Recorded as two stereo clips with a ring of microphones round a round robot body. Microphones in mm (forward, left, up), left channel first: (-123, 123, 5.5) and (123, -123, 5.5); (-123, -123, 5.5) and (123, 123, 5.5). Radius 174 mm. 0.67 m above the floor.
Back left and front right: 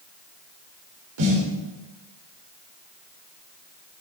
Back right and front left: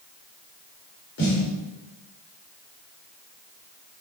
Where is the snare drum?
75° right, 2.5 m.